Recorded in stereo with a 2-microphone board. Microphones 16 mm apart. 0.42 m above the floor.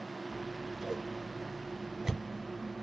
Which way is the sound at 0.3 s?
40° right (ahead or behind).